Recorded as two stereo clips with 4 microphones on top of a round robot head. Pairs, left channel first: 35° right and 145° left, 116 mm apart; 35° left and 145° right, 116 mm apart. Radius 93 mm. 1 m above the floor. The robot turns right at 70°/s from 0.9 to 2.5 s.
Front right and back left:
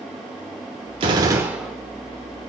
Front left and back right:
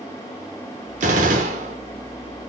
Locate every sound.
1.0 s a gunshot: 170° right, 1.1 m; by 1.8 s 115° right, 1.1 m